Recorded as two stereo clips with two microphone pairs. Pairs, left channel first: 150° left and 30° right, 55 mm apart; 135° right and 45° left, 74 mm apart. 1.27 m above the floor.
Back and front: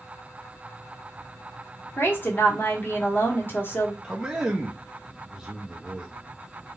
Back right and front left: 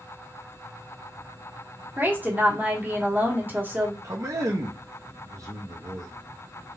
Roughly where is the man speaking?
Ahead left.